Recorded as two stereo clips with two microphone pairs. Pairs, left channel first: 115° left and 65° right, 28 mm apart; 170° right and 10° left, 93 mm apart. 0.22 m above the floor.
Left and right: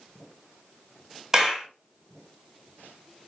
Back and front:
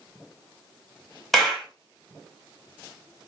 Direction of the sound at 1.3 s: 80° right.